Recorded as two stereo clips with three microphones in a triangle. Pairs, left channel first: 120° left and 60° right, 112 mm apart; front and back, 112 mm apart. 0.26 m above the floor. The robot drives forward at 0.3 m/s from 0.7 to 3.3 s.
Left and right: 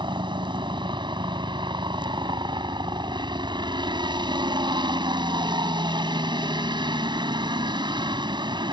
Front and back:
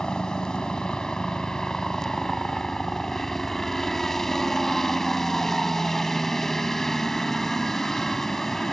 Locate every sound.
0.0 s a helicopter: 80° right; by 8.7 s 85° right